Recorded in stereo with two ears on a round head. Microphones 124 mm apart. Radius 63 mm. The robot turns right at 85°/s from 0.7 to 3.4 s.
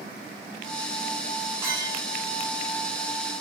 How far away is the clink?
About 2.5 m.